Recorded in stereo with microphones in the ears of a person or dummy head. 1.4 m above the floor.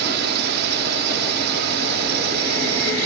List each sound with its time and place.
0.0 s a drone: 60° right (ahead or behind)